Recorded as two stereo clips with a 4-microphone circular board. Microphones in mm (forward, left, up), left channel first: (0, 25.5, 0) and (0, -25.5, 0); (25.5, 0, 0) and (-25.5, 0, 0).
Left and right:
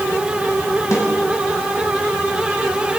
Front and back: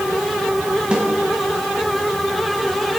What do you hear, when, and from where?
0.9 s a snare drum: 110° left, 6 m